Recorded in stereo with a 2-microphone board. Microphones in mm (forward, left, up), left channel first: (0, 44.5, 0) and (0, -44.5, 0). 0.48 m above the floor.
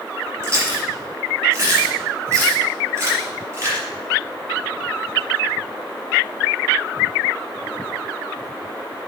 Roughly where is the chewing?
Right.